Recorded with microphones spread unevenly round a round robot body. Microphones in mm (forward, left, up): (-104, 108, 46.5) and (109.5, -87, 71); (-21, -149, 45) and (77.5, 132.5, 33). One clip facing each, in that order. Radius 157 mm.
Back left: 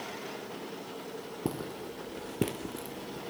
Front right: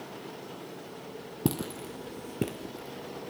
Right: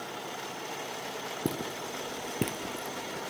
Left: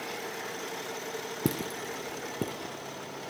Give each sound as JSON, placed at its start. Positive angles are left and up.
{"t": 1.4, "sound": "footsteps", "azimuth_deg": 0, "distance_m": 1.0}